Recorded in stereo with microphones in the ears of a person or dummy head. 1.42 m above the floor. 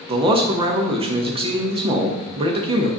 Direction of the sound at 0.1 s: 30° right (ahead or behind).